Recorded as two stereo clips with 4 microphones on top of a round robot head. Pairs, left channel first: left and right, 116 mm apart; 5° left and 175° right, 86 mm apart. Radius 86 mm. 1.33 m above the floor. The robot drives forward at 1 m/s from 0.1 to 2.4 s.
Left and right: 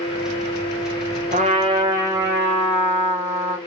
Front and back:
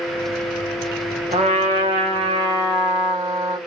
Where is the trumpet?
135° right, 0.8 m; by 3.6 s 160° right, 1.7 m.